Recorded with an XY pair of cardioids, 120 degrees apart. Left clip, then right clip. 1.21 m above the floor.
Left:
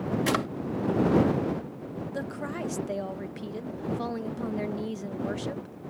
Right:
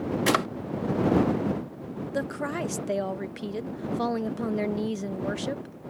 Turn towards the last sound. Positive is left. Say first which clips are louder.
# right 6 dB
turn(degrees=-30)